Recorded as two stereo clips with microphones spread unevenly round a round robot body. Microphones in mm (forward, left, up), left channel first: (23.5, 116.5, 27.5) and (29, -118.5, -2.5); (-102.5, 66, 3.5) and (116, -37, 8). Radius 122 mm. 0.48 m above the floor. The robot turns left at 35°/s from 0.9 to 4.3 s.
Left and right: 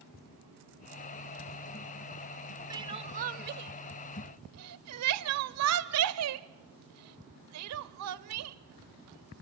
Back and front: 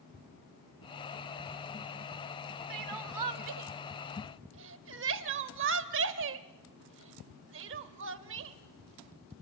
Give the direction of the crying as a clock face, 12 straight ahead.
12 o'clock.